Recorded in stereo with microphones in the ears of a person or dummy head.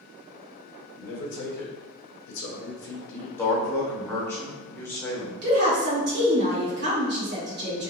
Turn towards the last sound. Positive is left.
turn(degrees=-60)  # may be behind; listen again after turning